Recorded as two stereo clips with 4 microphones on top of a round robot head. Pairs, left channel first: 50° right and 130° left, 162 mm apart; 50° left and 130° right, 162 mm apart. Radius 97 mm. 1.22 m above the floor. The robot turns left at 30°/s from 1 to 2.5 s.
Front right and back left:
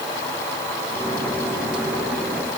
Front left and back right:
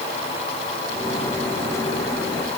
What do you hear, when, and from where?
Only background noise.